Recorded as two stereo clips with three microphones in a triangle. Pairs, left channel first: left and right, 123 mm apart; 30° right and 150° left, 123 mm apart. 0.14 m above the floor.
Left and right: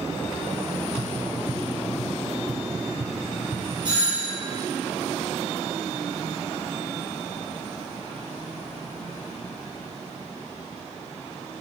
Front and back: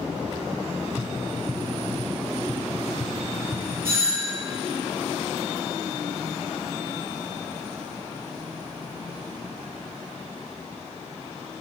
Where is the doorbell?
140° right, 4.5 m.